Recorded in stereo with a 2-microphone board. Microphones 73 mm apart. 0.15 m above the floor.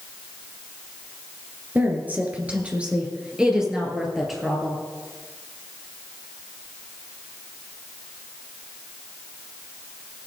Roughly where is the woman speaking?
Right.